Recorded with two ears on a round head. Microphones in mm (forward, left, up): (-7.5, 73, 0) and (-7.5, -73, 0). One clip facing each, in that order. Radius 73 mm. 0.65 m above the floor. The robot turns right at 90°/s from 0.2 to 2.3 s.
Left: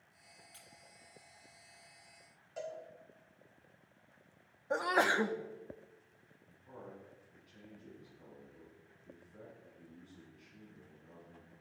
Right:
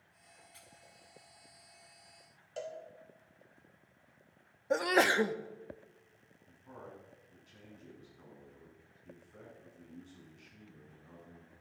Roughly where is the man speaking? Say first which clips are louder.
Right 1 dB; right.